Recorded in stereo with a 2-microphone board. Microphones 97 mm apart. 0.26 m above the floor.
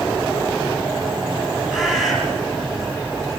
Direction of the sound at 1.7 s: 5° right (ahead or behind).